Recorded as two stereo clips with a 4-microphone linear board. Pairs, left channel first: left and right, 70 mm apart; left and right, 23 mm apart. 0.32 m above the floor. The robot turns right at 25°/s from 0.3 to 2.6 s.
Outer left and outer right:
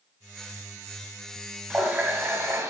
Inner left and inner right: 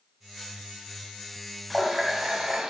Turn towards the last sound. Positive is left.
turn(degrees=-40)  # may be behind; listen again after turning